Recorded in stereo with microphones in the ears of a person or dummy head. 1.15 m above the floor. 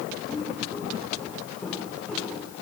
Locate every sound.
0.3 s footsteps: centre (ahead or behind), 8 m; by 2.5 s 5° left (ahead or behind), 10 m